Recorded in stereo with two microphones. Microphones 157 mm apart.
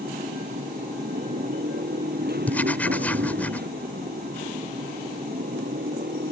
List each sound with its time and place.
0.0 s a motorcycle: 80° right; by 6.3 s 85° right
2.5 s writing: 10° left (ahead or behind)